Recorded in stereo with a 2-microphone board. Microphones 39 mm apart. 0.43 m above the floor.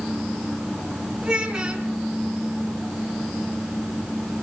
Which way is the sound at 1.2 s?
20° right (ahead or behind).